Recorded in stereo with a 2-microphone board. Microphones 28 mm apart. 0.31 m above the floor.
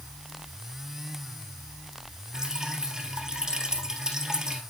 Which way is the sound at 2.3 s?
25° right (ahead or behind).